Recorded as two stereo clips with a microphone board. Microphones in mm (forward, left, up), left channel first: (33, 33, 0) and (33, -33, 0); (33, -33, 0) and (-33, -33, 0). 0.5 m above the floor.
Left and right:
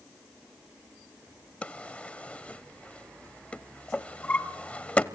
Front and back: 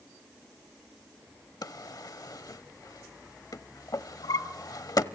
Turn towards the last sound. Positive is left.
turn(degrees=20)